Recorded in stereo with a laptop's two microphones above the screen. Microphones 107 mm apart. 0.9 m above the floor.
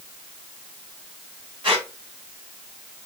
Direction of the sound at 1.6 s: 50° right (ahead or behind).